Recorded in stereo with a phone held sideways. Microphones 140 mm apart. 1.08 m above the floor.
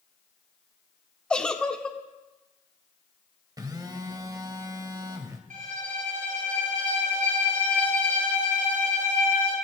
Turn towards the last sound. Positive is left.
turn(degrees=-75)  # may be behind; listen again after turning